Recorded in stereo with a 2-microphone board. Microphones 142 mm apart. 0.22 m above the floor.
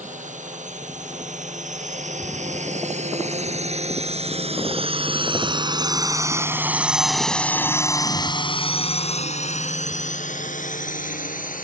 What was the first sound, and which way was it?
A drone, 60° right (ahead or behind).